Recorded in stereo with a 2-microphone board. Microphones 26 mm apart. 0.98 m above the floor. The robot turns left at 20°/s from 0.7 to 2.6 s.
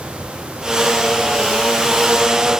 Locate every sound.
Only background noise.